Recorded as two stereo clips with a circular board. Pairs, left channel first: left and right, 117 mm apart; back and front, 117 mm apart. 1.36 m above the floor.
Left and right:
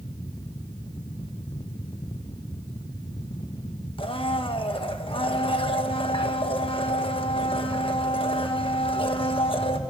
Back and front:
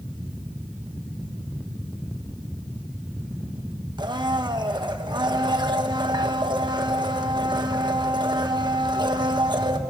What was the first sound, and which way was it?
A blender, 50° left.